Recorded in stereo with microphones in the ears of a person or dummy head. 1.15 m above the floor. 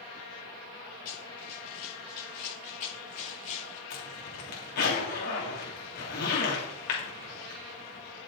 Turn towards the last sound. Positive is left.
turn(degrees=45)  # may be behind; listen again after turning